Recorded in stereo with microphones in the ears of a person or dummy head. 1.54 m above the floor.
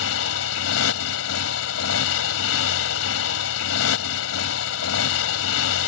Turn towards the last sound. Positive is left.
turn(degrees=80)